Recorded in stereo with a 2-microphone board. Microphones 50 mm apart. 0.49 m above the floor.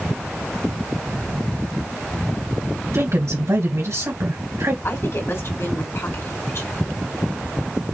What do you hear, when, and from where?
2.9 s a woman speaking: 70° right (ahead or behind), 3 m
4.8 s a woman speaking: 55° left (ahead or behind), 2 m